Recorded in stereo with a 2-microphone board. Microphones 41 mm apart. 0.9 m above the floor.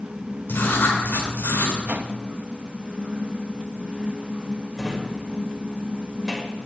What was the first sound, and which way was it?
Writing, 65° left (ahead or behind).